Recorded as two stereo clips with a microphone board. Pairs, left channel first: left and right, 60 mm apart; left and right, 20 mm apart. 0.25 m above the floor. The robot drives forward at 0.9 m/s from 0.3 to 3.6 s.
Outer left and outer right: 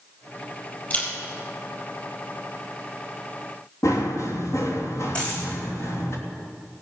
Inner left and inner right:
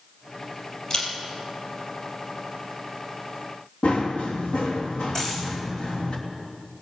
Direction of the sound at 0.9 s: 30° left (ahead or behind).